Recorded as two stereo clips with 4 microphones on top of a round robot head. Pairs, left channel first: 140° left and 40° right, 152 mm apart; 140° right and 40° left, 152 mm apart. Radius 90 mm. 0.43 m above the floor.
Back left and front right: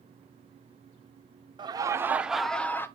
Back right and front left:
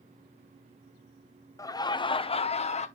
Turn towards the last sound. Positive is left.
turn(degrees=-150)